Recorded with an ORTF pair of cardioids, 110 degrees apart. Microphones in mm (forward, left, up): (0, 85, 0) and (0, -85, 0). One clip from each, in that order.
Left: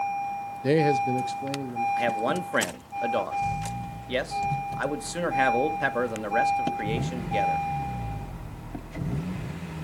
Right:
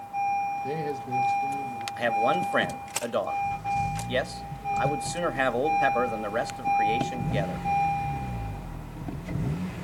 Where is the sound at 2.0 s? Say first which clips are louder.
Right 2 dB; 5° left, 1.7 m.